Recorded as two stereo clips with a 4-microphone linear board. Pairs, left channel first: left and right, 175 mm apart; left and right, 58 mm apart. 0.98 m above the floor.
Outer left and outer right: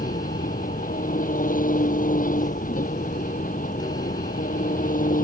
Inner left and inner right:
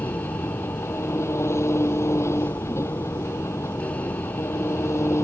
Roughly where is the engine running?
Left.